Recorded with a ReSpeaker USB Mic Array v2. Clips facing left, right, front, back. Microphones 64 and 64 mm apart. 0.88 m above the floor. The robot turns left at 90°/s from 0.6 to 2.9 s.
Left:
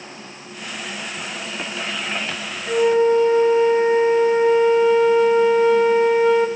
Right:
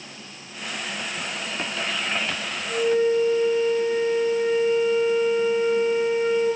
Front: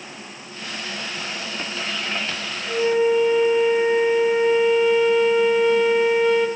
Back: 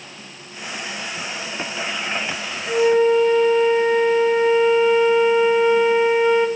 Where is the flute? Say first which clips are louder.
Left 5 dB, back 3 dB; 125° left, 1.0 m; by 6.5 s 105° left, 1.0 m.